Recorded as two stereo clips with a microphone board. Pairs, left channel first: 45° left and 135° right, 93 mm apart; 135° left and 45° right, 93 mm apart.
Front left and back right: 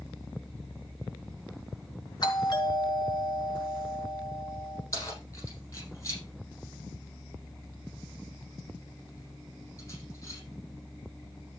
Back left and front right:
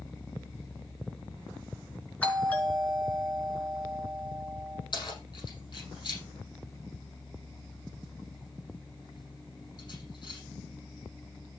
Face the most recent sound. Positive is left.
turn(degrees=95)